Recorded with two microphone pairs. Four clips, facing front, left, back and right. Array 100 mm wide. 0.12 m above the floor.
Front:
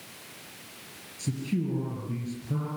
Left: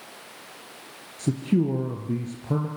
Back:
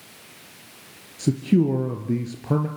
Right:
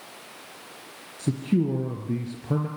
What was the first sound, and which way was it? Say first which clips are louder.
A man speaking: left 1 dB, back 11 dB; 165° left.